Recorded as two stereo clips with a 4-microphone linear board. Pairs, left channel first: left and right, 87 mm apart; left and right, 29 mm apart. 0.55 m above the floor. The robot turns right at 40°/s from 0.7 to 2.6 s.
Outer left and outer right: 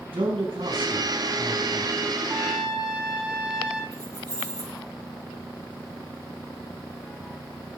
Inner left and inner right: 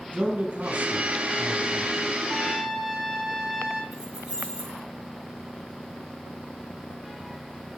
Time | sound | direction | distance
0.1 | a man speaking | 95° right | 4 m
2.3 | a trumpet | 20° right (ahead or behind) | 9 m
3.9 | keys jangling | 55° right (ahead or behind) | 8.5 m